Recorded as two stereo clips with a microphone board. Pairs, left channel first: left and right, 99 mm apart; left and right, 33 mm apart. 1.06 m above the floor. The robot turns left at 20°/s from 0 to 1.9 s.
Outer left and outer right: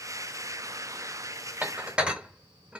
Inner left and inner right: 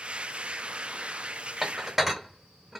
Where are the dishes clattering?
15° right (ahead or behind), 0.8 m; by 2.8 s 10° right (ahead or behind), 0.8 m.